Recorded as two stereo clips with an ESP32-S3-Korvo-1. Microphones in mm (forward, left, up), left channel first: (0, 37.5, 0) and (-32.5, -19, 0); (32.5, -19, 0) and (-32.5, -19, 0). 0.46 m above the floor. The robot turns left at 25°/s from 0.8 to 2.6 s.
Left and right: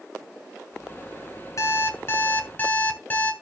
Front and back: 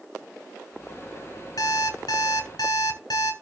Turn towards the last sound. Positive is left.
turn(degrees=-5)